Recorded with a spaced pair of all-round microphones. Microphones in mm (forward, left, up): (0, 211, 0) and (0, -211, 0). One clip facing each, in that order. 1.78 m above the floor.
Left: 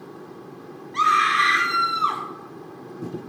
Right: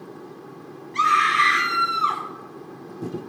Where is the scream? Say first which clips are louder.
Even; 40° right (ahead or behind), 0.8 m.